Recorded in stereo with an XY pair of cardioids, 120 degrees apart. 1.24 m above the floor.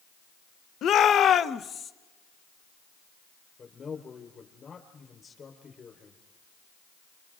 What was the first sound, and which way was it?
A shout, 55° left.